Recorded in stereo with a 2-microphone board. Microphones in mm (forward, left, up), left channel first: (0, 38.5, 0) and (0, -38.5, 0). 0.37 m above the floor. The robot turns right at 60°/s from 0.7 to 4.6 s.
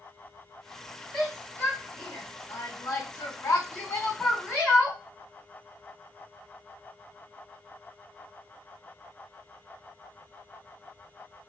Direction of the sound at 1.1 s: 5° right (ahead or behind).